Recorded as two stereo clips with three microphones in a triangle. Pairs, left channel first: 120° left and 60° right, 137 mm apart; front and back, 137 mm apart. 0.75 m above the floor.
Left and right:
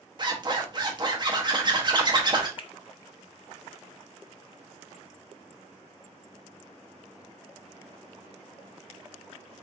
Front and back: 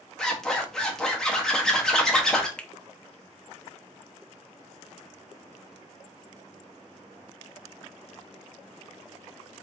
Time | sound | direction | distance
0.2 | a zipper | 85° right | 1.3 m
2.6 | a finger snap | 80° left | 0.6 m